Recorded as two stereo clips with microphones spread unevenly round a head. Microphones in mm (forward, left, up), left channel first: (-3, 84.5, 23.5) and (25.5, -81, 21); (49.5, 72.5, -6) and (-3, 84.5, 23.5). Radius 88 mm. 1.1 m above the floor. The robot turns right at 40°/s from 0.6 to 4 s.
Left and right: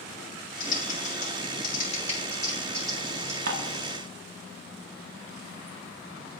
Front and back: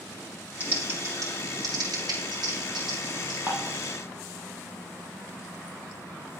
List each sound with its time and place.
0.6 s typing on a keyboard: 100° left, 2.5 m; by 3.4 s 150° right, 2.5 m
3.5 s dishes clattering: 120° right, 1.0 m; by 3.8 s 105° right, 1.0 m